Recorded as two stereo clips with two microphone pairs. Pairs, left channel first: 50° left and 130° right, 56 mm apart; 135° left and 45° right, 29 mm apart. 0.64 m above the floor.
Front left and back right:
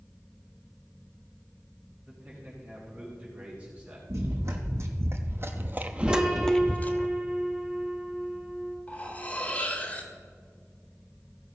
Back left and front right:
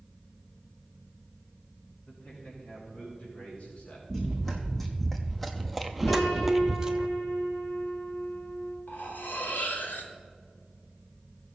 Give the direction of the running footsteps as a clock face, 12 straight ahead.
5 o'clock.